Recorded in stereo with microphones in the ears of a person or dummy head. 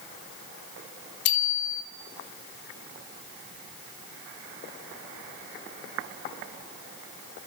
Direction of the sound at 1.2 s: 65° left (ahead or behind).